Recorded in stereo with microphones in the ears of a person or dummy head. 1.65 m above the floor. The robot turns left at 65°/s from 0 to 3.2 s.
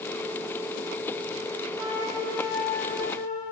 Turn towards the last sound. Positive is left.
turn(degrees=125)